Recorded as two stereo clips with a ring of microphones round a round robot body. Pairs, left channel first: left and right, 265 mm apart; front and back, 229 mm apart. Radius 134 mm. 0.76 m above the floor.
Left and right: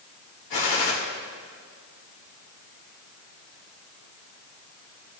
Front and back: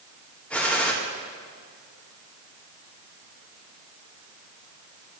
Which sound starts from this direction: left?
A gunshot, at 0.5 s.